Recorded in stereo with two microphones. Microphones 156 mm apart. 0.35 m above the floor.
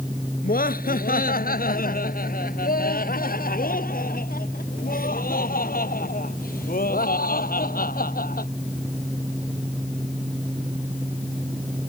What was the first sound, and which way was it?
Laughter, 65° left (ahead or behind).